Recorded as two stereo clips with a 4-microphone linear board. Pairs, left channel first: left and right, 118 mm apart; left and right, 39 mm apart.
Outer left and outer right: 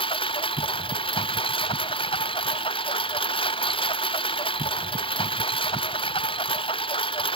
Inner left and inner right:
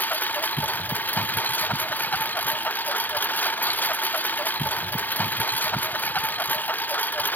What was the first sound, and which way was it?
A lawn mower, 50° left (ahead or behind).